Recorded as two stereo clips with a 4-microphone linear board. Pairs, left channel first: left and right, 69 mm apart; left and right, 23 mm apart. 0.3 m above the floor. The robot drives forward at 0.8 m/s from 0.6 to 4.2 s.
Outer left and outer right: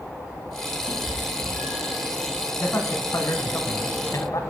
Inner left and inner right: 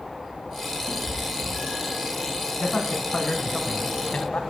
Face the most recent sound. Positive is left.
turn(degrees=55)  # may be behind; listen again after turning